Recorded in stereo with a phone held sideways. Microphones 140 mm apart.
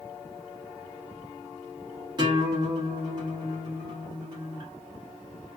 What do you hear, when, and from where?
2.2 s a guitar: 35° right (ahead or behind), 1.2 m